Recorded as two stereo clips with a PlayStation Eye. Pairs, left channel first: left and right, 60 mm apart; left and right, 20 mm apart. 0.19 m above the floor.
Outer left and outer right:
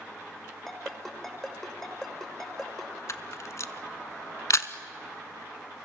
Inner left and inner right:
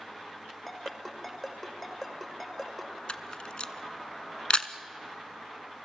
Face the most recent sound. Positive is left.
turn(degrees=55)  # may be behind; listen again after turning